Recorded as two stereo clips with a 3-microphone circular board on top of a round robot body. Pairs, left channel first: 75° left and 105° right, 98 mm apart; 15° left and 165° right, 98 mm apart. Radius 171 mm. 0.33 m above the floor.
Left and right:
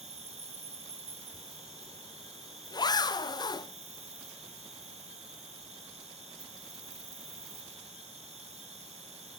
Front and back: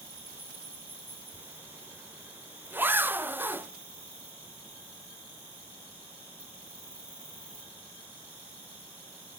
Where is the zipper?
125° left, 0.8 m.